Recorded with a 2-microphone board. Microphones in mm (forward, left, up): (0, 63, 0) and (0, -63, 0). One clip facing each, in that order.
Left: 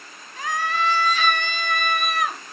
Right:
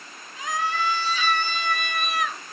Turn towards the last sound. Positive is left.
turn(degrees=50)  # may be behind; listen again after turning